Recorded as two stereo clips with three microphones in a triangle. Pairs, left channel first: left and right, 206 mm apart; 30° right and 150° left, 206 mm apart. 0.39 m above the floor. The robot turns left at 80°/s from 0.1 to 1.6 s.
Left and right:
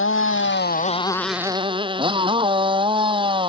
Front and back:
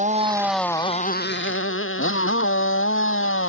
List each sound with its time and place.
0.0 s a motorcycle: 95° left; by 3.5 s 25° right